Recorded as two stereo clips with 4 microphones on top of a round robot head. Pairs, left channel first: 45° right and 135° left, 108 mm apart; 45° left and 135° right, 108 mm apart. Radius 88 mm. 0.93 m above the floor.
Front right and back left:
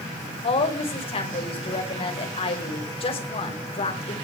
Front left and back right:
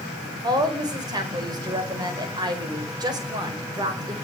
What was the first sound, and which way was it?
A woman speaking, 80° right.